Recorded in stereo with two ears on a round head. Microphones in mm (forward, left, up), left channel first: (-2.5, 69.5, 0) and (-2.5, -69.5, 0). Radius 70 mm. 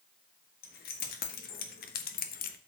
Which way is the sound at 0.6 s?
65° left (ahead or behind).